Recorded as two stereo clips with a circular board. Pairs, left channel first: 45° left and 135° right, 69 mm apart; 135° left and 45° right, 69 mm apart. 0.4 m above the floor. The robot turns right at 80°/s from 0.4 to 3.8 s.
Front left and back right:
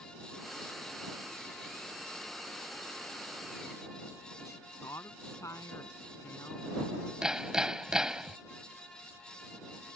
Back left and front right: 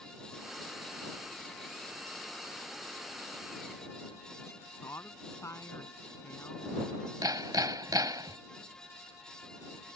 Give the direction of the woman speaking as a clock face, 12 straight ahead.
9 o'clock.